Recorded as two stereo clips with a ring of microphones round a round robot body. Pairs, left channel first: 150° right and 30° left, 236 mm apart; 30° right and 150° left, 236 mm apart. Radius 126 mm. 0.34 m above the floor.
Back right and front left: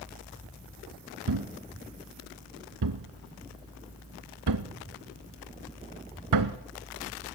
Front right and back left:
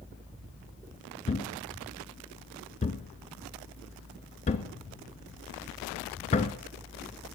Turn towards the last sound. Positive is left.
turn(degrees=35)